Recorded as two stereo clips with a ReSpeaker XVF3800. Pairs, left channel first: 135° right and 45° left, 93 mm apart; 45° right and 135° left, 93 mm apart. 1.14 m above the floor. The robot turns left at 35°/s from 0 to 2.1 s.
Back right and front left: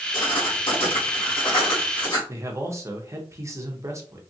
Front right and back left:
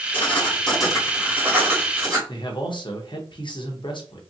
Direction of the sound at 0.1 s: 110° right.